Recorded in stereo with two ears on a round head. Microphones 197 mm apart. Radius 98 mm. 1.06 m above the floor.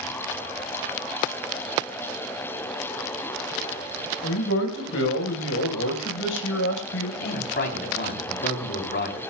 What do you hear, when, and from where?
4.2 s a man speaking: 60° left (ahead or behind), 4.5 m
7.2 s a man speaking: 50° left (ahead or behind), 3 m